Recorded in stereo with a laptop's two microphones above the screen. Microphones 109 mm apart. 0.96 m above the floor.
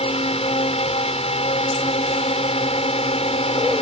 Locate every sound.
0.0 s a drone: 65° left (ahead or behind)